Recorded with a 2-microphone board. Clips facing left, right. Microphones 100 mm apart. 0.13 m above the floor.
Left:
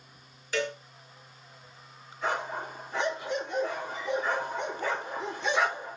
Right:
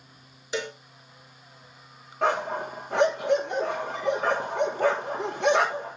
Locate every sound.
0.5 s a cowbell: 20° right (ahead or behind), 3 m
2.2 s a dog barking: 70° right (ahead or behind), 8.5 m